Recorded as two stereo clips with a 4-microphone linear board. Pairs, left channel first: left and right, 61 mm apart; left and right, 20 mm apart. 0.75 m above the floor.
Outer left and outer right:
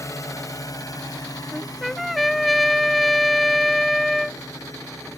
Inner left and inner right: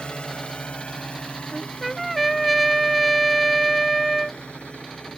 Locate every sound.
0.0 s a drone: 55° left (ahead or behind); by 5.2 s 65° left (ahead or behind)
1.5 s a trumpet: 5° left (ahead or behind)